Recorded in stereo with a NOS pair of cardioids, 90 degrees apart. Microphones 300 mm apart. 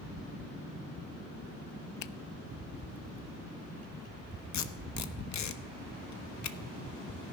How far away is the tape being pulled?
About 0.9 m.